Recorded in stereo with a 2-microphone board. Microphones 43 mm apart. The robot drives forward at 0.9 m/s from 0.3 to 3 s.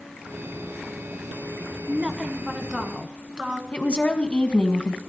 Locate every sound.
1.9 s a woman speaking: 25° right (ahead or behind), 1.3 m; by 3.6 s 20° right (ahead or behind), 1.7 m
3.7 s a woman speaking: 25° left (ahead or behind), 1.6 m